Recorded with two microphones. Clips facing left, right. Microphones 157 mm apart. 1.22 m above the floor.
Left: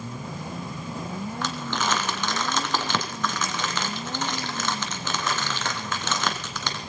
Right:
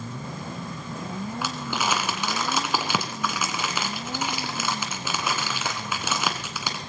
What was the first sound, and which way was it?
Crumpling, 10° right (ahead or behind).